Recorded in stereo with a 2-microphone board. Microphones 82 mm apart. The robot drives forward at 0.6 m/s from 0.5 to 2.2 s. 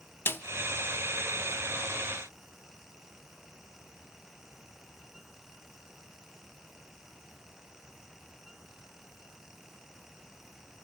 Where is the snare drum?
25° left (ahead or behind), 0.5 m.